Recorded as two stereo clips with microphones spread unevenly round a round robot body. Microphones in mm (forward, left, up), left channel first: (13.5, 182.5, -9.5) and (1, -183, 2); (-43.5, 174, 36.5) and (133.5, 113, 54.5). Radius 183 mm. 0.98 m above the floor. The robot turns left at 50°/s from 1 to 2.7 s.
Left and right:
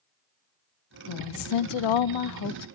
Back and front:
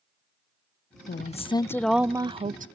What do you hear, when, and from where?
1.1 s a woman speaking: 115° left, 0.6 m; by 2.7 s 35° left, 0.6 m